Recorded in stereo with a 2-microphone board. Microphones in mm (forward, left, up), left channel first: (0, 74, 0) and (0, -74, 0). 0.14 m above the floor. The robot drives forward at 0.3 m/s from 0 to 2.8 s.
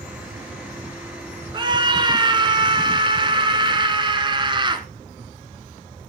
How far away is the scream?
About 1.4 m.